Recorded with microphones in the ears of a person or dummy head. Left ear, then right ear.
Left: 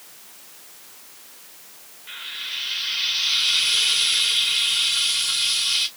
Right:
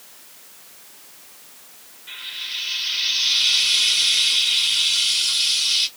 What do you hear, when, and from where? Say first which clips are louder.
2.1 s frying: right 1 dB; 5° left (ahead or behind), 1.3 m